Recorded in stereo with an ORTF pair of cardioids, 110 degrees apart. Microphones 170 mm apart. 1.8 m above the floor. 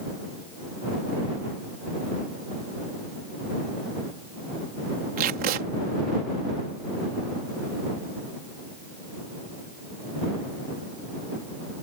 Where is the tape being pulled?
60° right.